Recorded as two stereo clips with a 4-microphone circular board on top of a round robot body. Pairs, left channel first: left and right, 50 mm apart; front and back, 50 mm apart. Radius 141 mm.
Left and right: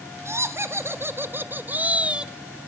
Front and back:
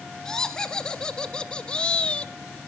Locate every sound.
0.2 s laughter: 75° right, 2 m; by 2.3 s 35° right, 1.2 m